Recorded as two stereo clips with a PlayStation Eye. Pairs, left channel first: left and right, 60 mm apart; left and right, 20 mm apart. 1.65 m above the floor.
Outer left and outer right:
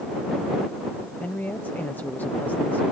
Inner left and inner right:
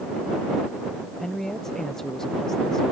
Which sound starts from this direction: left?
A woman speaking, at 1.2 s.